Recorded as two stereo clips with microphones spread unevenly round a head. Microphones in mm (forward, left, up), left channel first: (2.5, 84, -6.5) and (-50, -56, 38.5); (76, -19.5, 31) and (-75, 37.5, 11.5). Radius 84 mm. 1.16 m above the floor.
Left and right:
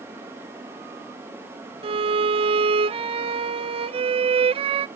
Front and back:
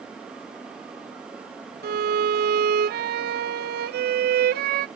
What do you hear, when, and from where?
1.8 s a violin: 165° right, 0.5 m